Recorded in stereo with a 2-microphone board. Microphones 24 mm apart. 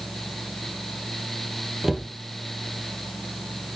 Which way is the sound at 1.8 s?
20° right (ahead or behind).